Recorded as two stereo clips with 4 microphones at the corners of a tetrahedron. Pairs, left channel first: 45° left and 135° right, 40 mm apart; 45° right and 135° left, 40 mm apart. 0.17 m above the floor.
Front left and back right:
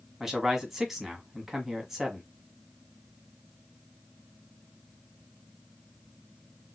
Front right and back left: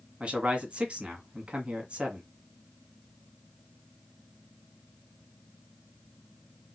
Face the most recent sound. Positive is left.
turn(degrees=150)